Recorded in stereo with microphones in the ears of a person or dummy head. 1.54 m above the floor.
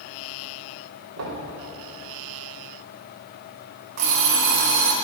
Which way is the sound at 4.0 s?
45° right (ahead or behind).